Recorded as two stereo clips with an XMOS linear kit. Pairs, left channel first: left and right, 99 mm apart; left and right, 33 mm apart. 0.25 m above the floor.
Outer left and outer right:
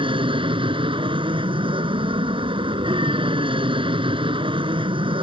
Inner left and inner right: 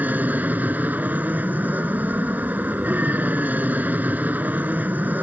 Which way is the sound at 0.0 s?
65° right (ahead or behind).